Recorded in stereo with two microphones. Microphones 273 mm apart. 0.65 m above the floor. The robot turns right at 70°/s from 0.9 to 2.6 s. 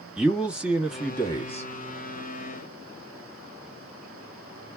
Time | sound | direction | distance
0.2 | a man speaking | 5° right | 1.1 m